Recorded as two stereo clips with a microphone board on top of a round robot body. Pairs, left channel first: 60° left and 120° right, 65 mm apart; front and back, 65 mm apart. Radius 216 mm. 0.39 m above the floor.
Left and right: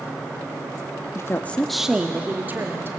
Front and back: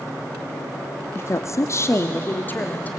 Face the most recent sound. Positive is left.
turn(degrees=-65)